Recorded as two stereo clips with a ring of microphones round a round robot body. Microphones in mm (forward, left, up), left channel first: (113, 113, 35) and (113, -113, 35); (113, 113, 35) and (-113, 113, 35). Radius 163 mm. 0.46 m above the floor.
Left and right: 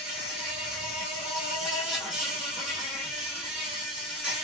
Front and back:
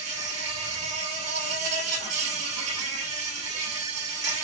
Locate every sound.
0.0 s an insect: straight behind, 1.1 m